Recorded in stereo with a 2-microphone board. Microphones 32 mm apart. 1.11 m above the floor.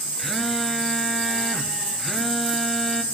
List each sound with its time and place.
0.2 s a phone buzzing: 10° left (ahead or behind), 2.5 m